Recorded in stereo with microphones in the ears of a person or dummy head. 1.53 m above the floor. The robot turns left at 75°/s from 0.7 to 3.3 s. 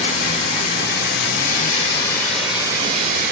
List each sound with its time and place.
0.0 s running water: 125° left, 2 m; by 3.3 s 70° right, 2 m